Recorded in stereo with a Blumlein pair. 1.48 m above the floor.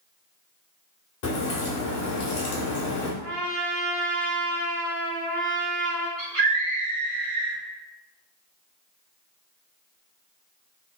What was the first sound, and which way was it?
A crack, 50° left.